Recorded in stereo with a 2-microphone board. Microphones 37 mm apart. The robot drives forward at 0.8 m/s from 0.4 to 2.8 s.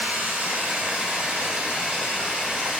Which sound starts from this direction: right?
Running water, at 0.0 s.